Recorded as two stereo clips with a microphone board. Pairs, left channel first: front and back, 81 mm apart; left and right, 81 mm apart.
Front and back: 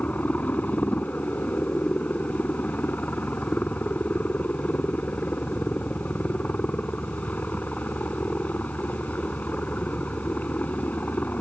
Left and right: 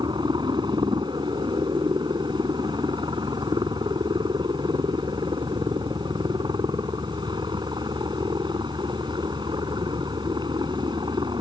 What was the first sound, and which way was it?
A helicopter, 70° right.